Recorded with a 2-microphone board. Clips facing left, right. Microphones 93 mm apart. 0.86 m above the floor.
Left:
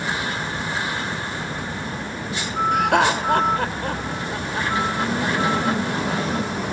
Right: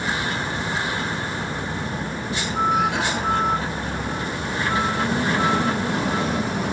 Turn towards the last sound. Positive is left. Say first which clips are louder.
# left 4 dB
turn(degrees=70)  # may be behind; listen again after turning